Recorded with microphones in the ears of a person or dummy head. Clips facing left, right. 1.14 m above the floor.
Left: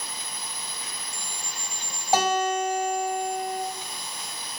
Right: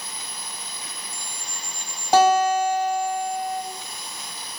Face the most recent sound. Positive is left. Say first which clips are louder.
# right 6 dB
turn(degrees=-60)  # may be behind; listen again after turning